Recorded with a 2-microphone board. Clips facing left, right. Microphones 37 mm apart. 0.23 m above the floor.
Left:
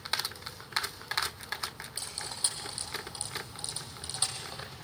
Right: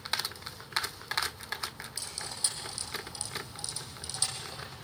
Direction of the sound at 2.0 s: 25° left (ahead or behind).